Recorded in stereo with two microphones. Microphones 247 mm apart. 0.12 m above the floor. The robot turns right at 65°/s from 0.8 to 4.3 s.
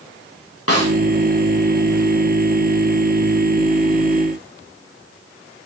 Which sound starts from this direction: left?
A snare drum, at 0.7 s.